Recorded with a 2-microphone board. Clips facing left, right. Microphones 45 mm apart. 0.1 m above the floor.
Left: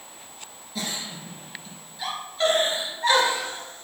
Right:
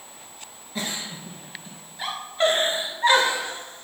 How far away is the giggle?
About 2.0 m.